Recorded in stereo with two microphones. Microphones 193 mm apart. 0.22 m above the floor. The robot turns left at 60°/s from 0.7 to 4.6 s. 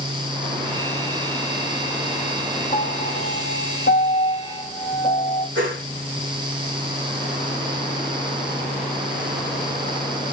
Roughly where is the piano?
Behind left.